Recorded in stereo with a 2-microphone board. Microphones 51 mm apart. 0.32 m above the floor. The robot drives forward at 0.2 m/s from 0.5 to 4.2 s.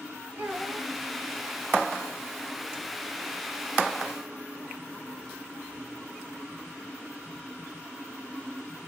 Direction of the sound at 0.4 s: 55° right (ahead or behind).